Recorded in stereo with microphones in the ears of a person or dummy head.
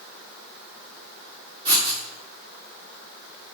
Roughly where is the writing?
Right.